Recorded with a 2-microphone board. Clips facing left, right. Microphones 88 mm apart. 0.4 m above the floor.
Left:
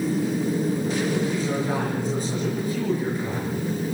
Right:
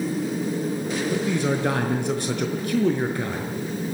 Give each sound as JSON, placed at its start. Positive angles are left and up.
{"t": 1.1, "sound": "a man speaking", "side_deg": -80, "distance_m": 5.0}